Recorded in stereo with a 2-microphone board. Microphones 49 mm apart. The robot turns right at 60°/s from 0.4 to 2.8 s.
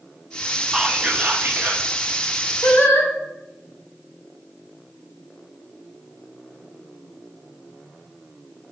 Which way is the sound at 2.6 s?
75° left (ahead or behind).